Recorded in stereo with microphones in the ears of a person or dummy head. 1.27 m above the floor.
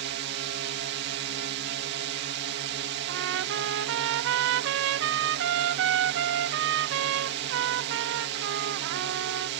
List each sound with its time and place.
0.0 s a drone: 60° right (ahead or behind)
3.1 s a trumpet: 65° right (ahead or behind)